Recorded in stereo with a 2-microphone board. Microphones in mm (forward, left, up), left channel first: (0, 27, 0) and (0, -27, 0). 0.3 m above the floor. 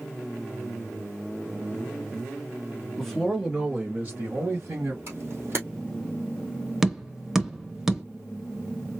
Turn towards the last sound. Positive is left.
turn(degrees=-10)  # may be behind; listen again after turning